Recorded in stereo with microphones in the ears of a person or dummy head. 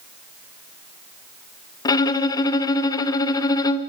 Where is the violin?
25° left (ahead or behind), 0.9 m.